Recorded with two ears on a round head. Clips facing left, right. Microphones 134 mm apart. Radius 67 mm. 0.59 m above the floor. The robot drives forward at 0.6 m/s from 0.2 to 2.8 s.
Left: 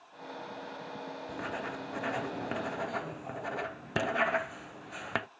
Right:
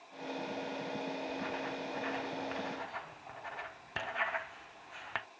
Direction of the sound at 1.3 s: 55° left (ahead or behind).